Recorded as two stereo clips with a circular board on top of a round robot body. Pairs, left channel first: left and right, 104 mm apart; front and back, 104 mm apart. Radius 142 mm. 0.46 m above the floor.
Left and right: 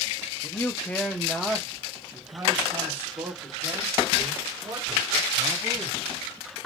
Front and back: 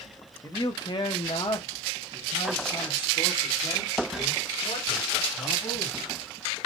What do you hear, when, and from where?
0.4 s a man speaking: 40° left, 0.9 m; by 6.0 s 40° right, 3 m